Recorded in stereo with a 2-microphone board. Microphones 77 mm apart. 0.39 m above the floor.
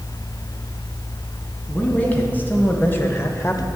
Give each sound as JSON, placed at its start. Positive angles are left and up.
{"t": 1.7, "sound": "a man speaking", "side_deg": 20, "distance_m": 3.5}